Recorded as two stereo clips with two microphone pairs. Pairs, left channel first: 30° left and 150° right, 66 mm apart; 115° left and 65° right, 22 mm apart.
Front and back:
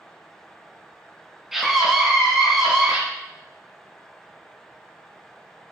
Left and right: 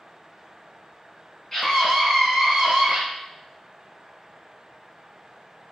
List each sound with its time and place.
1.5 s a scream: 140° left, 1.1 m; by 3.0 s 90° right, 1.1 m